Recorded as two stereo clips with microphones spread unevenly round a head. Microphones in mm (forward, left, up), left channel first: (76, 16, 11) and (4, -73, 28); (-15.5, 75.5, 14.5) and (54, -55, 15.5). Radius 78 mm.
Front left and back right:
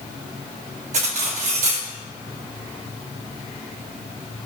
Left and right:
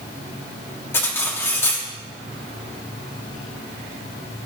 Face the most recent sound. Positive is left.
turn(degrees=-165)